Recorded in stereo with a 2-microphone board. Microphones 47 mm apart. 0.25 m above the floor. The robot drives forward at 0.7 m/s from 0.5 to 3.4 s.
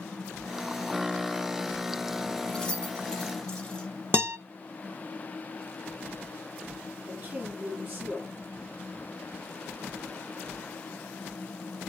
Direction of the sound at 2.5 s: 15° left (ahead or behind).